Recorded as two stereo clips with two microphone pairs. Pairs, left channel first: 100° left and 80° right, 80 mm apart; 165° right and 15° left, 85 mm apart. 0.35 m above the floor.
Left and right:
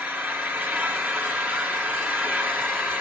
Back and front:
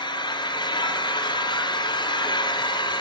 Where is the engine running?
145° right, 2.5 m.